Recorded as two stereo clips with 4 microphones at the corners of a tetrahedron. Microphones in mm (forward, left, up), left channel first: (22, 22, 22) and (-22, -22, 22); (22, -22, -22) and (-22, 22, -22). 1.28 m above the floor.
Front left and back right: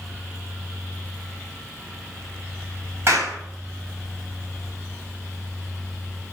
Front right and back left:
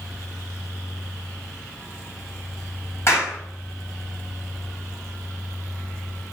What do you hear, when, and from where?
3.1 s a clap: 95° right, 6.5 m